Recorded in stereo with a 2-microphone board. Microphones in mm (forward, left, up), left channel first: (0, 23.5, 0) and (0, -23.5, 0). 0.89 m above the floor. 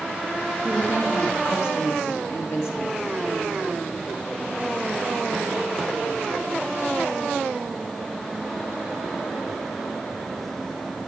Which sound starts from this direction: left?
A woman speaking, at 0.6 s.